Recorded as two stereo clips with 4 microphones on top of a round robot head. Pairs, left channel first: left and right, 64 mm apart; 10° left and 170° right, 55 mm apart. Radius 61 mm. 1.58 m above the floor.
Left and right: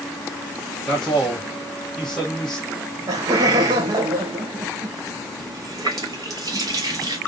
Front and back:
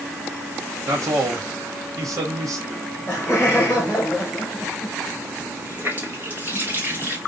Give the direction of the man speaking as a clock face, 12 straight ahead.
6 o'clock.